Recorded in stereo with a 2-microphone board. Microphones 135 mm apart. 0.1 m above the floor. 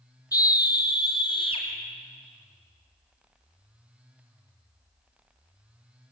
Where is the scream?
25° left (ahead or behind), 3.5 m; by 1.6 s 40° left (ahead or behind), 4.5 m.